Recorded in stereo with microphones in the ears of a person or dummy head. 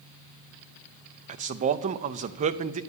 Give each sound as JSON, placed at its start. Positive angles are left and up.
{"t": 1.3, "sound": "a man speaking", "side_deg": -40, "distance_m": 0.5}